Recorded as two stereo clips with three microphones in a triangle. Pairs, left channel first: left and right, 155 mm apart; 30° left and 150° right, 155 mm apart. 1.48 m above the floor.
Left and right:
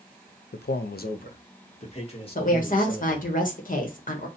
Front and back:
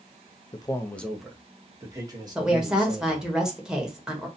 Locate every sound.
0.5 s a man speaking: 90° left, 0.5 m; by 3.4 s 155° left, 1.7 m
2.4 s a woman speaking: 125° left, 1.1 m